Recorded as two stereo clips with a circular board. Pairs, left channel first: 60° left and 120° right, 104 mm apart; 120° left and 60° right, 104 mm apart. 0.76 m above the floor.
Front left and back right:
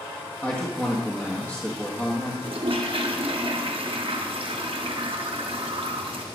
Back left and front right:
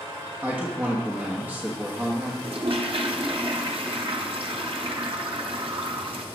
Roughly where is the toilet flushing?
Right.